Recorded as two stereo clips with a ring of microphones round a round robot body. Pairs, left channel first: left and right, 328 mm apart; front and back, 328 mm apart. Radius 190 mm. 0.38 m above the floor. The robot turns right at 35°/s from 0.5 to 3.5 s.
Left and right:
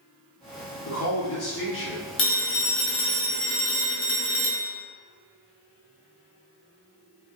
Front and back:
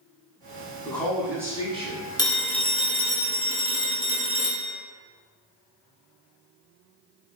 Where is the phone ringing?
70° left, 0.6 m; by 4.8 s 115° left, 0.6 m.